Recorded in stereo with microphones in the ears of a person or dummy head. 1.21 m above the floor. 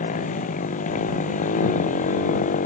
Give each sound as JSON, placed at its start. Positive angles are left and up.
{"t": 0.0, "sound": "a motorcycle", "side_deg": 45}